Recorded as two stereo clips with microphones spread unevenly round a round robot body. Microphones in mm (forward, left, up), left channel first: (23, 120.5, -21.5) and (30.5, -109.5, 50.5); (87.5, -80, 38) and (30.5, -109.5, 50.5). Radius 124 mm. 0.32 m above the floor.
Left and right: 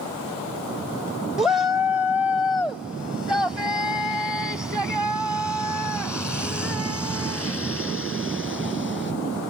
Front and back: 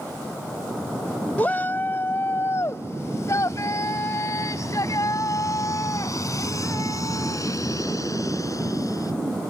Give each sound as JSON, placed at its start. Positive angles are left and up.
{"t": 1.4, "sound": "a shout", "azimuth_deg": 25}